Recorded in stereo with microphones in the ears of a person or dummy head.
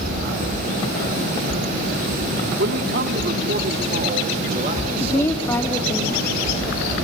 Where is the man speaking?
65° right (ahead or behind), 3 m; by 5.9 s 30° right (ahead or behind), 5.5 m.